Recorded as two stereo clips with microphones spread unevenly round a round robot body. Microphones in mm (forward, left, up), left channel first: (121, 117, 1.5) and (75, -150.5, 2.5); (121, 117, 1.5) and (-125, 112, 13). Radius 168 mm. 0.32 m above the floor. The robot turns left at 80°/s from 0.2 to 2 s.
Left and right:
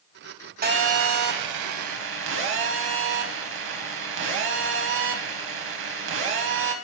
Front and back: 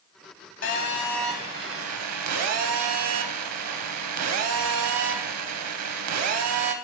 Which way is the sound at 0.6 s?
40° right.